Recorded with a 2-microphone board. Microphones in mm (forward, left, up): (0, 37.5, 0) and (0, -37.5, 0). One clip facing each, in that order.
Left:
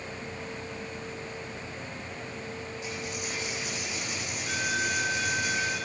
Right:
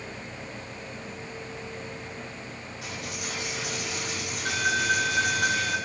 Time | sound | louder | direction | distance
2.8 | a dropped coin | right 2 dB | 70° right (ahead or behind) | 9.5 m